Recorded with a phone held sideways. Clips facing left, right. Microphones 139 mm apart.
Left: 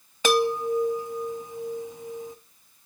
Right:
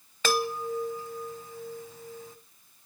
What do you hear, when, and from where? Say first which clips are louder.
0.2 s a chime: left 6 dB; 20° left (ahead or behind), 0.9 m